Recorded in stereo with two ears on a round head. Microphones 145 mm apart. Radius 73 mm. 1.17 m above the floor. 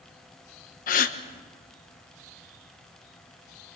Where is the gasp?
55° left (ahead or behind), 1.2 m.